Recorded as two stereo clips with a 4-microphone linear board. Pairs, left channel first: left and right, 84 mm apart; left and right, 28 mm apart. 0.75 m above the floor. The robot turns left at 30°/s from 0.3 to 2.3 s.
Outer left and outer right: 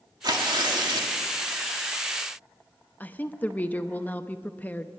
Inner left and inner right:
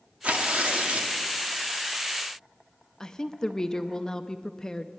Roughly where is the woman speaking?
Left.